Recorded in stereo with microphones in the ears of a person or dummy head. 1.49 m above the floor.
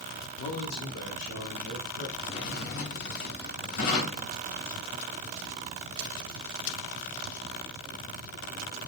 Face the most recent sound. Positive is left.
turn(degrees=65)  # may be behind; listen again after turning